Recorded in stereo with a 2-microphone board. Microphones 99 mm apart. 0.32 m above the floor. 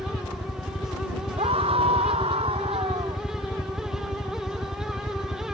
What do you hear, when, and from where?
0.0 s a helicopter: 40° left (ahead or behind)
1.4 s a scream: 75° right (ahead or behind)